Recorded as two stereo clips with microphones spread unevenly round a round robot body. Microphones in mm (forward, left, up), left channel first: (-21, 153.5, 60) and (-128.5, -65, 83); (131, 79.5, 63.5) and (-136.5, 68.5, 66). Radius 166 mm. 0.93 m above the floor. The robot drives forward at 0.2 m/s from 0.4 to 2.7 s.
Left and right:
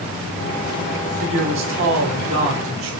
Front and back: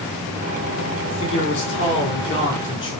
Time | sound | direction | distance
1.1 | a man speaking | 65° right | 4 m